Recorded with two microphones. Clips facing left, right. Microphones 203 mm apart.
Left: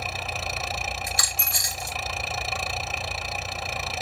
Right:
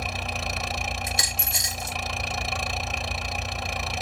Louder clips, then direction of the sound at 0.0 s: Right 1 dB; centre (ahead or behind).